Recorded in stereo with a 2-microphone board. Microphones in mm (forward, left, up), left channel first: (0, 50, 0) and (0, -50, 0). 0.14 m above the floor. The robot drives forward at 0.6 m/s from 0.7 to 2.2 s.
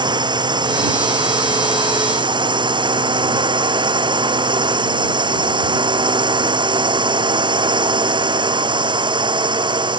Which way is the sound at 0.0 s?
50° right (ahead or behind).